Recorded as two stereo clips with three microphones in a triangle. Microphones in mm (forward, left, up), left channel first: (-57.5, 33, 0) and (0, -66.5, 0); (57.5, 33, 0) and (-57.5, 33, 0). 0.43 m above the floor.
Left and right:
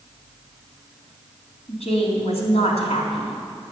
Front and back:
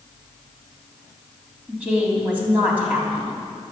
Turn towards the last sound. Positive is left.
turn(degrees=105)